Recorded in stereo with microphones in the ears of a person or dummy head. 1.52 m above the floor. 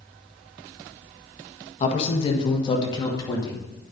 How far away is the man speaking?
About 1.7 m.